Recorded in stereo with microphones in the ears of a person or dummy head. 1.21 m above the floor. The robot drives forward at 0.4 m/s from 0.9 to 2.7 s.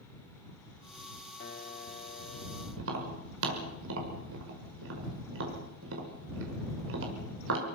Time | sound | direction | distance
1.4 | a piano | 40° left (ahead or behind) | 0.8 m
2.8 | tapping | 75° right (ahead or behind) | 5 m